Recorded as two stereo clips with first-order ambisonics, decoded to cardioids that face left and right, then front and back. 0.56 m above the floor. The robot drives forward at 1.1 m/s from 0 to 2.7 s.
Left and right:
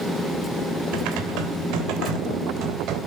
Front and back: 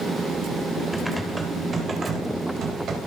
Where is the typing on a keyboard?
85° right, 2.5 m; by 3.0 s 125° right, 3 m.